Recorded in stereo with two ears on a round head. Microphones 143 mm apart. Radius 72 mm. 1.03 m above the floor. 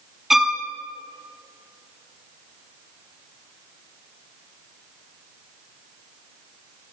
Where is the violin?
Centre (ahead or behind), 1.7 m.